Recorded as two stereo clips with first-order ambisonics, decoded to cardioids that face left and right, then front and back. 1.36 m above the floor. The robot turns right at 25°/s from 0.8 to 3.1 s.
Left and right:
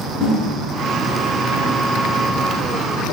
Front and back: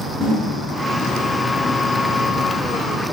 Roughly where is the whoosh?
Right.